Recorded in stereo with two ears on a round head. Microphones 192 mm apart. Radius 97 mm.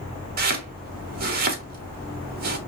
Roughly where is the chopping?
Right.